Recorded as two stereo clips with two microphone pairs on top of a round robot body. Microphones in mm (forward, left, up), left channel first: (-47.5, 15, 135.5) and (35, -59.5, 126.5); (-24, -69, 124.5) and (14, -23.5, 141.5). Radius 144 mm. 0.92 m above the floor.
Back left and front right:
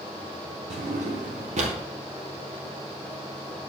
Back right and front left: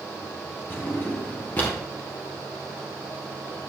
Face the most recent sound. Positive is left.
turn(degrees=-60)